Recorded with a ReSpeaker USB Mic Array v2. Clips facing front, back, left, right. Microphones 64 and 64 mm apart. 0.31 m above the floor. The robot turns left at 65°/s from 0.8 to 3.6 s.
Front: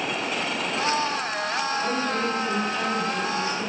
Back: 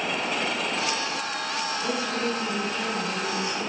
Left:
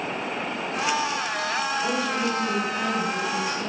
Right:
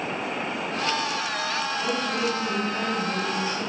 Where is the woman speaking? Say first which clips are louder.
Front 2 dB, left 1 dB; 10° right, 1.7 m; by 3.7 s 130° right, 1.7 m.